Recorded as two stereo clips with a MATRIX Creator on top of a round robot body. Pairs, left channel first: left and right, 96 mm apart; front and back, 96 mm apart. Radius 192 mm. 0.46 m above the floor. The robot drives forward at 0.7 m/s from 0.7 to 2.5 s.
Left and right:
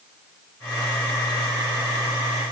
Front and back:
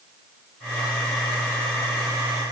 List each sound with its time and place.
Only background noise.